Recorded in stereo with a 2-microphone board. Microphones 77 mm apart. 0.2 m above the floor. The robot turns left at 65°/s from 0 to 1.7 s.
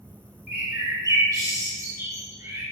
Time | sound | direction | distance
0.5 | a bird | 25° right (ahead or behind) | 0.9 m